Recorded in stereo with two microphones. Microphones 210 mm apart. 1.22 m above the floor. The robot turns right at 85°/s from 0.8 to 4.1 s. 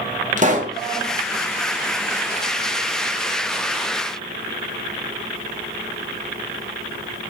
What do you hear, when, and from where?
0.4 s a pop: 40° right (ahead or behind), 0.6 m